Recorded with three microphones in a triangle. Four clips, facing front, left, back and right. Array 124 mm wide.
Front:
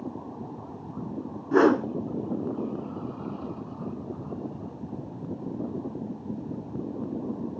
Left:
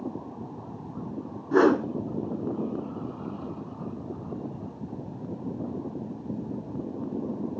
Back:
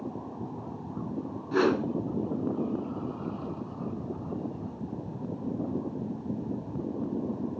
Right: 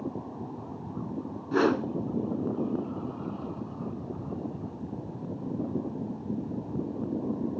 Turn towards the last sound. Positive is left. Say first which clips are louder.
# left 5 dB, front 5 dB
turn(degrees=35)